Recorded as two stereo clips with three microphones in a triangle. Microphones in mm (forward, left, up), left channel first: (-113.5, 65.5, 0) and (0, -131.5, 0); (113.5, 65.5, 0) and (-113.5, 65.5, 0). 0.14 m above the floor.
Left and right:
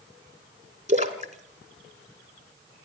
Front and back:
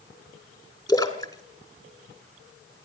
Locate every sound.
0.9 s a splash: 60° right, 1.8 m